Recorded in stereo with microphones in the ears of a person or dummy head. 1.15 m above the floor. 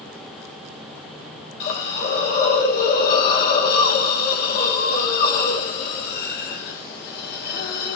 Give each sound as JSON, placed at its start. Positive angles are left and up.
{"t": 1.6, "sound": "a hiss", "side_deg": 55, "distance_m": 1.2}